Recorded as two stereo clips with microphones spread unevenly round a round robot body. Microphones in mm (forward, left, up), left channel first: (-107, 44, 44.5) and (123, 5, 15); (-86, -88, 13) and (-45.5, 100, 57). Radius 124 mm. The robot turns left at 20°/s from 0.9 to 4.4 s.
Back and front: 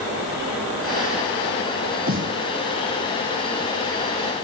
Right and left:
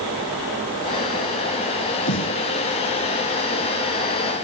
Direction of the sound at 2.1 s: 65° right.